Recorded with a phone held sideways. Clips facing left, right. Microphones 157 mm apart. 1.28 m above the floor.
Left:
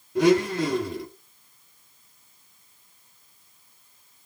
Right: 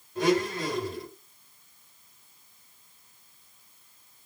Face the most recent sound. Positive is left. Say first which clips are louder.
# left 6 dB
turn(degrees=85)